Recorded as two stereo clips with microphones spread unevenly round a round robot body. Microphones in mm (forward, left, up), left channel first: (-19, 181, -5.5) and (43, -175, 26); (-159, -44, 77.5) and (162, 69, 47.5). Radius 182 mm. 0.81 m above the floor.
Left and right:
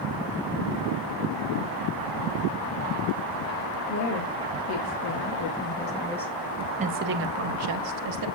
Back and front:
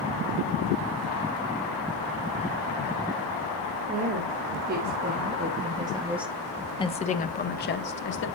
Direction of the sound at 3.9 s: 70° left.